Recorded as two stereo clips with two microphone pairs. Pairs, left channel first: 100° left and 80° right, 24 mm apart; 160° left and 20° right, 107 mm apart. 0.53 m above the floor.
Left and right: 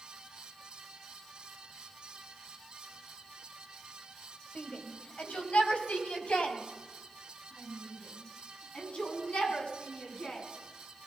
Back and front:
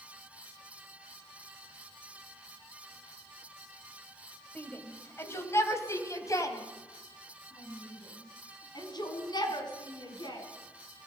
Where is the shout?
90° left, 3 m; by 10.4 s 120° left, 6 m.